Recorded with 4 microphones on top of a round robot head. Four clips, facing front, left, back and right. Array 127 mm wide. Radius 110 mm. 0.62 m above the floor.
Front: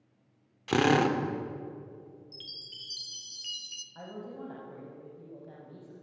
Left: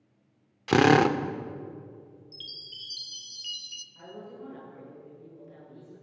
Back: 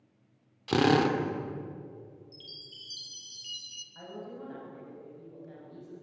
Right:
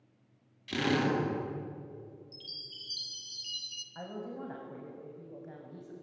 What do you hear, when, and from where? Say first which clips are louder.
0.7 s a drill: left 10 dB, even; 100° left, 1.9 m
2.3 s a chime: left 1 dB, even; 35° left, 1.2 m
4.0 s a woman speaking: right 2 dB, front 1 dB; 60° right, 4.5 m